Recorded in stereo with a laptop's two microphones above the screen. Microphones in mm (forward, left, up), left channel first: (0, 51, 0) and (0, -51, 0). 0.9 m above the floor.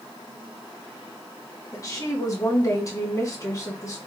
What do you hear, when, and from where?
1.7 s a woman speaking: 35° left (ahead or behind), 1.2 m